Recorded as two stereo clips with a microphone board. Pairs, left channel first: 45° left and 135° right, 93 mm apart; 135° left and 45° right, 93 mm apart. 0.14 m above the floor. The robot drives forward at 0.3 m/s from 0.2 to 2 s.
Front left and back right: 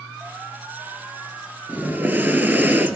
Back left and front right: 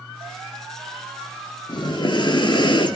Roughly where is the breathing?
Behind left.